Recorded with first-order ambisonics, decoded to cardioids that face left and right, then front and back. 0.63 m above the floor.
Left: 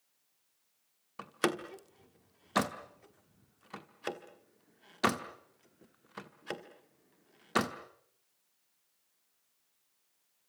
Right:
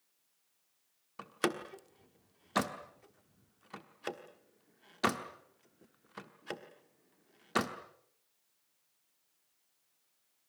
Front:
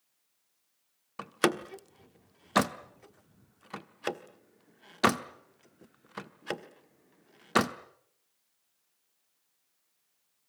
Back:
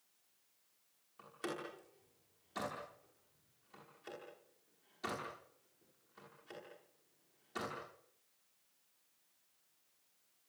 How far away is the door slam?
About 1.1 m.